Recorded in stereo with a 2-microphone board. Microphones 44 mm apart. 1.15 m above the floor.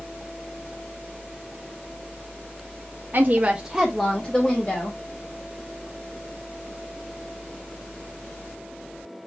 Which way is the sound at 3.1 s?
45° right (ahead or behind).